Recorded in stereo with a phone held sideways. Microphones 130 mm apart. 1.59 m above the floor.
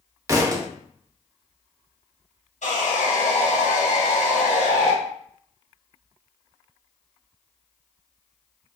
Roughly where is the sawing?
Left.